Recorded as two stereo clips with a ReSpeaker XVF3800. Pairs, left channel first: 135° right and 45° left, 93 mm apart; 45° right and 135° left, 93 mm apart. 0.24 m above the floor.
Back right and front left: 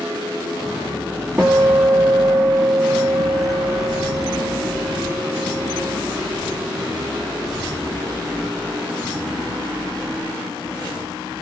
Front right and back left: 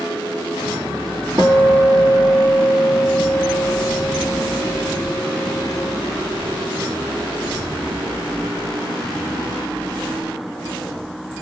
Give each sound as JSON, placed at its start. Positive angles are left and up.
{"t": 1.4, "sound": "a guitar", "azimuth_deg": 110, "distance_m": 1.2}